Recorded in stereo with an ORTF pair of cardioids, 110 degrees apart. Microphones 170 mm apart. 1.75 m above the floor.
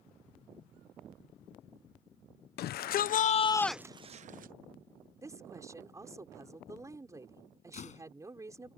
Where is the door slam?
45° left.